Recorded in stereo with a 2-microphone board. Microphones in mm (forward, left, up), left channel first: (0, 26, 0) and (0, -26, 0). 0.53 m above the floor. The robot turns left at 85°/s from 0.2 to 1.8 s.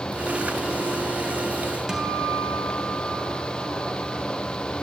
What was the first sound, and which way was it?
A guitar, 15° right (ahead or behind).